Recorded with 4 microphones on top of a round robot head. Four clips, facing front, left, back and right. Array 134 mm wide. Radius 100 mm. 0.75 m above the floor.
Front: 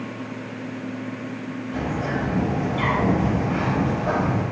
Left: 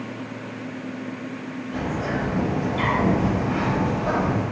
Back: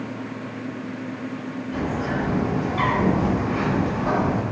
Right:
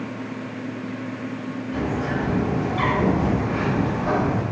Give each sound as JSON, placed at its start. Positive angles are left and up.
{"t": 1.7, "sound": "a bird", "azimuth_deg": -175, "distance_m": 1.4}